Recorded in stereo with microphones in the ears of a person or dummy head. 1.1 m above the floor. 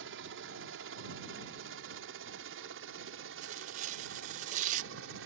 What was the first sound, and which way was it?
A helicopter, 65° right (ahead or behind).